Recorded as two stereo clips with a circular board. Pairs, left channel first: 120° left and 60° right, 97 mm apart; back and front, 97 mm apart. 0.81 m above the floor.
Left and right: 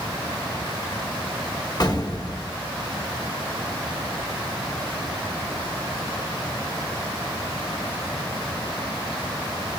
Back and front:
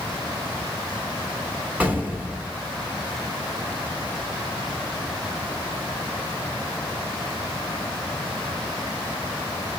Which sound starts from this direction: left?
An explosion, at 1.8 s.